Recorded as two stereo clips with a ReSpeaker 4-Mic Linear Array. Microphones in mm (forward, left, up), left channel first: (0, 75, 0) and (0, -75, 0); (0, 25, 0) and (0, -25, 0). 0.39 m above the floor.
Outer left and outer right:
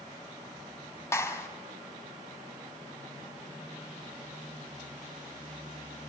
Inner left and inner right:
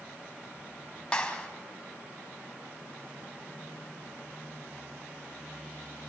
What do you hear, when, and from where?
1.1 s a clap: 20° left (ahead or behind), 2 m